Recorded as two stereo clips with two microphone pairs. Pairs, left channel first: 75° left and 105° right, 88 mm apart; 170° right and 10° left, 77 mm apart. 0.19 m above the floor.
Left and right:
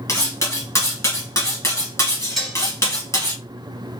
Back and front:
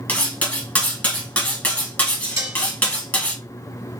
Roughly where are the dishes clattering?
Ahead.